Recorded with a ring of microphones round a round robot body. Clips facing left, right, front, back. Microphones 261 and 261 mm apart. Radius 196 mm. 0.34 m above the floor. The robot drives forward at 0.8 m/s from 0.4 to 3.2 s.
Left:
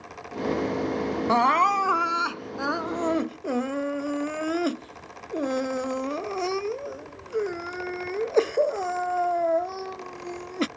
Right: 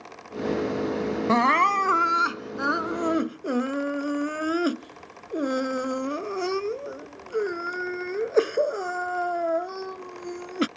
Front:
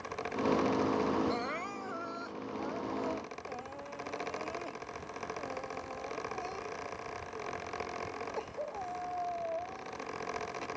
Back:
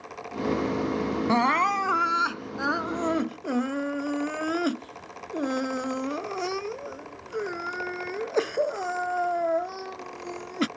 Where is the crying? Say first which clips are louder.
Right 2 dB, back 11 dB; 150° right; by 10.7 s 165° right.